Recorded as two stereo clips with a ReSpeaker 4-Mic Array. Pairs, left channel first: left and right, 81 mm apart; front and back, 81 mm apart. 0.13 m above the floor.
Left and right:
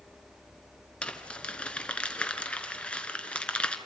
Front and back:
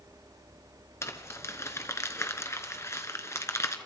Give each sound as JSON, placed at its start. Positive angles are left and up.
{"t": 1.0, "sound": "crumpling", "azimuth_deg": 25, "distance_m": 1.2}